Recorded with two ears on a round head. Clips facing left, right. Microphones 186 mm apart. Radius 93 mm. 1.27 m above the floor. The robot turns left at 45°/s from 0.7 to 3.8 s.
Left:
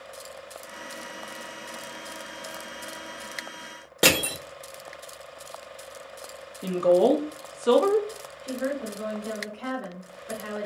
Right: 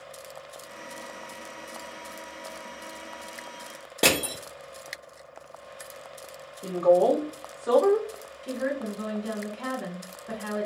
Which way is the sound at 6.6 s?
40° left (ahead or behind).